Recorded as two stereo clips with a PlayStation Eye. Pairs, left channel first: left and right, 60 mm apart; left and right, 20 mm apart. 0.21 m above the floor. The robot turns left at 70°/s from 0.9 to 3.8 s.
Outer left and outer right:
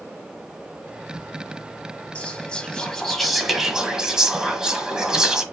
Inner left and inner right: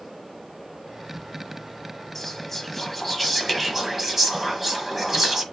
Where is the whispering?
20° left (ahead or behind), 1.1 m; by 5.4 s 10° right (ahead or behind), 1.1 m.